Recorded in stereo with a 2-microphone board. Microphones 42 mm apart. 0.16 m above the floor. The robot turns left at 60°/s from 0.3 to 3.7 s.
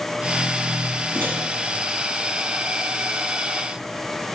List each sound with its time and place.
1.1 s a microwave: 55° right (ahead or behind), 2 m